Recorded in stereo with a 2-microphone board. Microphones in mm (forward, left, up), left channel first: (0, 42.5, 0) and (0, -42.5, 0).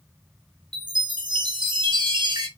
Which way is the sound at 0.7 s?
60° right (ahead or behind).